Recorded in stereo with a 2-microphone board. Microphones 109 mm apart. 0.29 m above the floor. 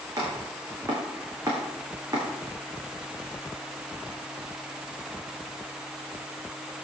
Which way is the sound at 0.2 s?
30° right (ahead or behind).